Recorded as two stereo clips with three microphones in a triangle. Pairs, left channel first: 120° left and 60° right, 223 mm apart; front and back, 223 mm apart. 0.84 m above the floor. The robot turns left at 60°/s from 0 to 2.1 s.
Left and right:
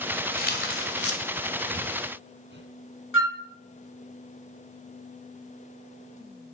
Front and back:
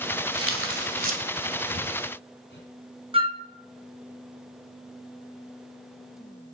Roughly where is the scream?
No scream in this recording.